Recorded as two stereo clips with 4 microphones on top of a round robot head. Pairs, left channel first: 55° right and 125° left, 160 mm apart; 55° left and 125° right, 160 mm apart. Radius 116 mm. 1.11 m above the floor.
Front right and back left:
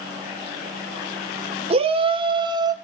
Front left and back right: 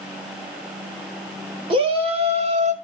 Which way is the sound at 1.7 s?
Straight behind.